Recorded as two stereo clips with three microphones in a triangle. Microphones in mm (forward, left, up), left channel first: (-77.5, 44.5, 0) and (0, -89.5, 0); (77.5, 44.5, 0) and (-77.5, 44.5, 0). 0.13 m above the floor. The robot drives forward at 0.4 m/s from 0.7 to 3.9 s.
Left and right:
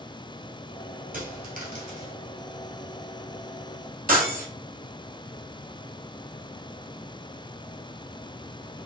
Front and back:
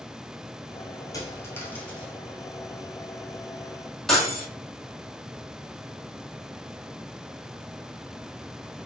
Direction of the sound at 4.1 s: 85° right.